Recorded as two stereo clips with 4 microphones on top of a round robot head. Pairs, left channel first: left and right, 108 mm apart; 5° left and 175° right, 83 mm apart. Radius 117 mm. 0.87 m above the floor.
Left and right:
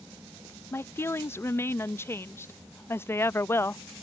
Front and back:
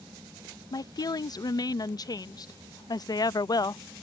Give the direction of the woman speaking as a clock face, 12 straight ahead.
11 o'clock.